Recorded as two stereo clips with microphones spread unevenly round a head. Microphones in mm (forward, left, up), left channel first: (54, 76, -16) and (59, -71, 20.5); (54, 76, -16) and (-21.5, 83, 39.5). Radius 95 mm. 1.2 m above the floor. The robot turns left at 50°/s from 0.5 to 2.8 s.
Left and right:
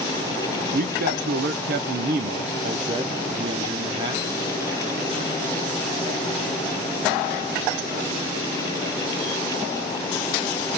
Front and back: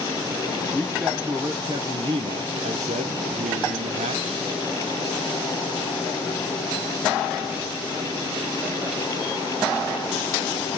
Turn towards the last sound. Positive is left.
turn(degrees=-160)